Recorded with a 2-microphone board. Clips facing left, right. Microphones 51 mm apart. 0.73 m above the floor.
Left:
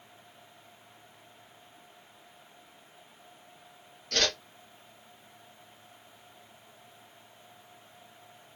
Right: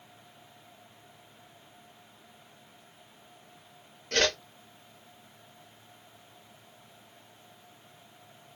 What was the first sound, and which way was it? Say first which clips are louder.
A whoosh: right 3 dB; 30° right (ahead or behind).